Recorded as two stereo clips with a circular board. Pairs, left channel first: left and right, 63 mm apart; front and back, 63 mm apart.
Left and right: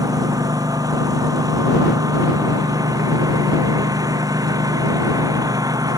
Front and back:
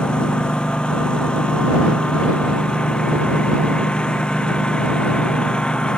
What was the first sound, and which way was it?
A lawn mower, 75° right.